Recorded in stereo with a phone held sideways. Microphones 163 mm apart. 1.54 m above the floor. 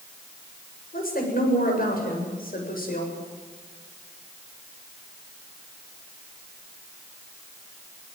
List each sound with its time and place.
0.9 s a woman speaking: 65° left (ahead or behind), 7.5 m